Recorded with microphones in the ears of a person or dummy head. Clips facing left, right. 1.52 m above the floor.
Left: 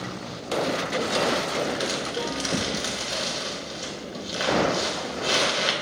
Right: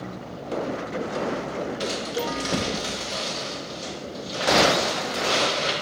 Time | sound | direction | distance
1.8 | crumpling | 15° left (ahead or behind) | 0.7 m